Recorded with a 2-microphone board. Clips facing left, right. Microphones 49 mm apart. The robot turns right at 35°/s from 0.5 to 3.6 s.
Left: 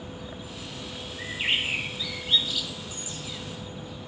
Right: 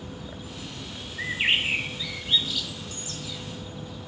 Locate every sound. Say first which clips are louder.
1.2 s a bird: right 3 dB; 40° right (ahead or behind), 0.8 m; by 3.4 s 35° left (ahead or behind), 0.8 m